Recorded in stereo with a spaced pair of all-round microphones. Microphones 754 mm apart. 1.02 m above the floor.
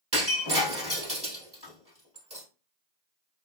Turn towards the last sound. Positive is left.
turn(degrees=-20)  # may be behind; listen again after turning